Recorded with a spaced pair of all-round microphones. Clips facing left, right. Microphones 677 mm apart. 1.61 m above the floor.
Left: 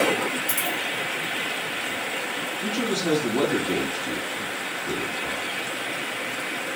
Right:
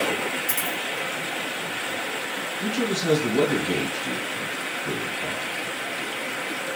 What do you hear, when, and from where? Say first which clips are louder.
0.5 s a dropped coin: left 1 dB; 25° right (ahead or behind), 1.7 m
2.6 s a man speaking: right 1 dB; 50° right (ahead or behind), 1.4 m